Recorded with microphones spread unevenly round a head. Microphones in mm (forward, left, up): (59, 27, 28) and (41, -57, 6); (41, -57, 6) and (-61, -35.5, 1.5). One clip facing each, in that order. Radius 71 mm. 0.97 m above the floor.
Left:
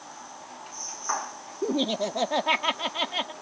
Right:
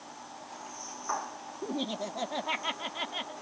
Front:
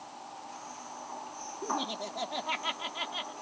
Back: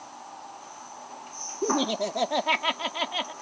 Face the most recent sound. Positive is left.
turn(degrees=130)